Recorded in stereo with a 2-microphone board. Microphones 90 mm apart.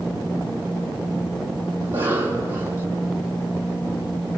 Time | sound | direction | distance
1.8 | a cough | 25° right (ahead or behind) | 4 m